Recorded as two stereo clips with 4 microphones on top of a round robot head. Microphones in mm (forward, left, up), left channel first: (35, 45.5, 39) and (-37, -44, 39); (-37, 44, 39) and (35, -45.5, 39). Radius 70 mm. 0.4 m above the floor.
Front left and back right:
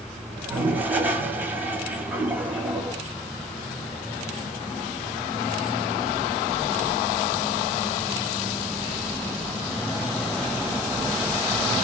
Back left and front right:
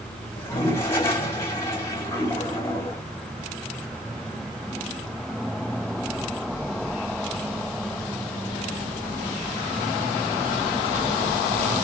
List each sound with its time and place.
0.4 s a toilet flushing: 170° left, 1.1 m